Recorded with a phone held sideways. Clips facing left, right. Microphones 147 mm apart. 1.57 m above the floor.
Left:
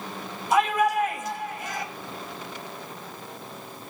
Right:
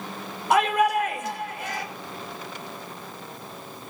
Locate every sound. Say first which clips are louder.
0.5 s a shout: right 1 dB; 65° right (ahead or behind), 6 m